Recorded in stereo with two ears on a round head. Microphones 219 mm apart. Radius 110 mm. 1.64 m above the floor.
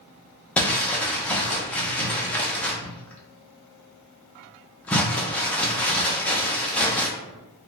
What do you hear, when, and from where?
0.6 s crumpling: 5° left (ahead or behind), 0.6 m